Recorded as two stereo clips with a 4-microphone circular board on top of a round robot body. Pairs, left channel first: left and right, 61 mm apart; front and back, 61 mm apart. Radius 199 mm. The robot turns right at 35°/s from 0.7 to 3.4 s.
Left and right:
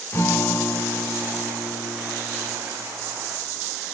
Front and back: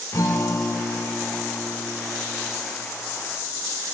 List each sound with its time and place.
0.1 s a guitar: 40° left, 0.5 m; by 2.6 s 110° left, 0.5 m